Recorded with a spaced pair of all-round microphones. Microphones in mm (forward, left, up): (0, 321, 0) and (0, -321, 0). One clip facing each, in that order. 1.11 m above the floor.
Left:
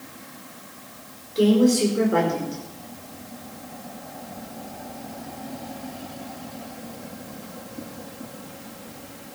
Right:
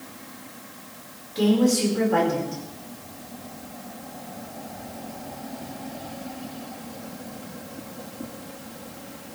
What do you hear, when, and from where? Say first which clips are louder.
1.4 s a woman speaking: left 3 dB; 20° right (ahead or behind), 4.5 m